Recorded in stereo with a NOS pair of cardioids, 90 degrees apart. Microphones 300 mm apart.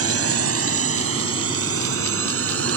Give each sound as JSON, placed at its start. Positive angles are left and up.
{"t": 0.0, "sound": "a drone", "azimuth_deg": -50}